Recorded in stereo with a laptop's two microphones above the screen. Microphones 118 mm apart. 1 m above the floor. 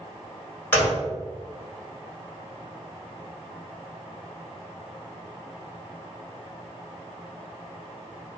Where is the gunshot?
15° left (ahead or behind), 1.9 m.